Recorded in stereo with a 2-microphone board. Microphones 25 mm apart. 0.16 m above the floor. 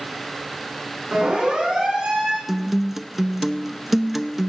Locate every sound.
1.1 s a siren: 40° right (ahead or behind), 10 m
2.5 s a guitar: 10° right (ahead or behind), 0.7 m